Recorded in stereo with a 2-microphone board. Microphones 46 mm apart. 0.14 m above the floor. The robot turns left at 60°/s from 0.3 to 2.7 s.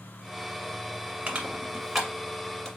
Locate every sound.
1.3 s crushing: 20° right (ahead or behind), 1.4 m; by 2.7 s 10° left (ahead or behind), 1.4 m